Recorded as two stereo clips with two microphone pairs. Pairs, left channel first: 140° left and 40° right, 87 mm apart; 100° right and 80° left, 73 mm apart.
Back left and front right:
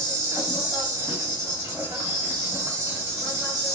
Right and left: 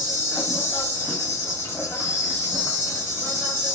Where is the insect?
85° right, 1.2 m.